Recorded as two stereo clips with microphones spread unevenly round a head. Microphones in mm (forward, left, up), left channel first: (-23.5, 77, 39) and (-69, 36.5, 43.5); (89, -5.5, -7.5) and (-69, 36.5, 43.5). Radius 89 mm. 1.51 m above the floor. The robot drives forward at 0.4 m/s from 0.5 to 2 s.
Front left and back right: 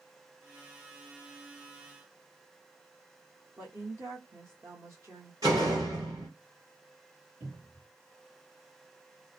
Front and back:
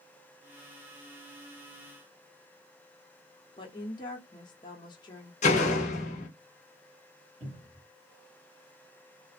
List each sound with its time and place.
3.6 s a woman speaking: 80° right, 0.9 m
5.4 s a door slam: 75° right, 1.0 m
7.4 s a cupboard door: 155° right, 1.2 m